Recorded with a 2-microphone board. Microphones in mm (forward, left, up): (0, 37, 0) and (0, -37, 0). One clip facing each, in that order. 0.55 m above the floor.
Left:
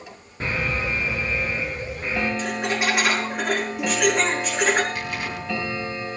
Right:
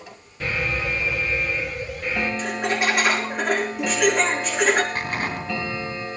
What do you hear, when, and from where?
0.4 s an alarm: 35° left (ahead or behind), 6.5 m
2.4 s laughter: 5° left (ahead or behind), 6 m
5.0 s an explosion: 40° right (ahead or behind), 2.5 m